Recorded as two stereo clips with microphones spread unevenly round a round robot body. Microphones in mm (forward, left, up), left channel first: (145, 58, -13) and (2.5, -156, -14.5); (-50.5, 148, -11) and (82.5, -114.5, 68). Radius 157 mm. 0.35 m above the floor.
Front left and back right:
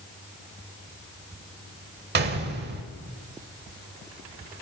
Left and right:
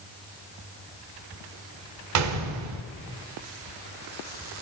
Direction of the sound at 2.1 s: 90° right.